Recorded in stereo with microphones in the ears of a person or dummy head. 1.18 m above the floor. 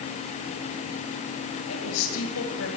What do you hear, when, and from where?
1.7 s a woman speaking: 85° left, 6.5 m; by 2.7 s 80° left, 5 m